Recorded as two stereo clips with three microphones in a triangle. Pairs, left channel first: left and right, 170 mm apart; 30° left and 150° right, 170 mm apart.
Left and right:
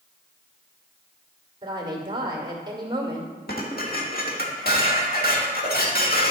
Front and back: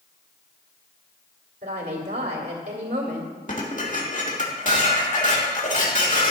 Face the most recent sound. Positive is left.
turn(degrees=70)